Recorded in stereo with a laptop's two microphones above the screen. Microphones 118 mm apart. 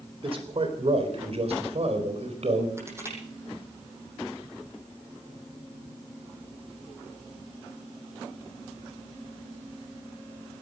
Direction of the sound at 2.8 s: 25° right (ahead or behind).